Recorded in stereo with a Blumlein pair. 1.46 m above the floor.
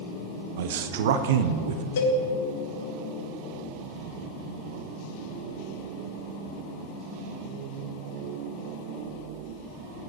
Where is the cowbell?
65° left, 2 m.